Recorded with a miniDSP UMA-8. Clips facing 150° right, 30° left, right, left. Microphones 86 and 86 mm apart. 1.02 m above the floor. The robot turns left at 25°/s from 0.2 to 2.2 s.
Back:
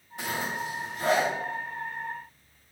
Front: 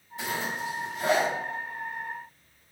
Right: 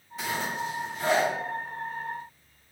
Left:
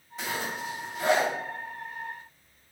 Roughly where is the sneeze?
I don't hear a sneeze.